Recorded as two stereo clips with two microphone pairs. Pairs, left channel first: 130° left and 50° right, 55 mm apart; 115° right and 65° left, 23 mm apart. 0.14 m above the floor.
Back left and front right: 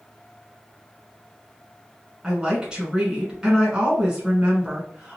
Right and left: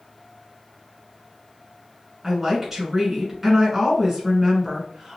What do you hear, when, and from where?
2.2 s a woman speaking: 10° left, 1.5 m